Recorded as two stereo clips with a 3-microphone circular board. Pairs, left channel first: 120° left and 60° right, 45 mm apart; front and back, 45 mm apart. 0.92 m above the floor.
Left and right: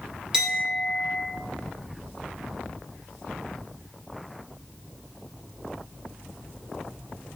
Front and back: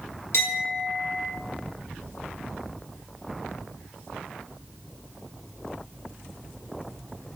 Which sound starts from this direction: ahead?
A clink, at 0.3 s.